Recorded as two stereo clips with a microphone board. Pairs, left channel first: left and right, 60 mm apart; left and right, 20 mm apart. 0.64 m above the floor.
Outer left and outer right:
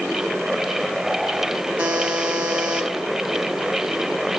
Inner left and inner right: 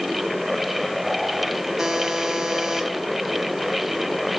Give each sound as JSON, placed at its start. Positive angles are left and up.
{"t": 1.8, "sound": "a buzzer", "side_deg": -20, "distance_m": 2.0}